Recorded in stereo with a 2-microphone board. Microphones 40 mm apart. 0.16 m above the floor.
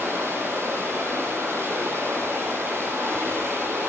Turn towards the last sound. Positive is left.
turn(degrees=-80)